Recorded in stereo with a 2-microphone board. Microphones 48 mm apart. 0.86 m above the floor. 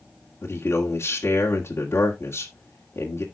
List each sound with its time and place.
0.4 s a man speaking: 55° left (ahead or behind), 2.0 m